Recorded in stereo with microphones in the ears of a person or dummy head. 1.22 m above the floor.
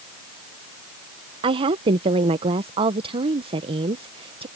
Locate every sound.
1.4 s a woman speaking: 30° right (ahead or behind)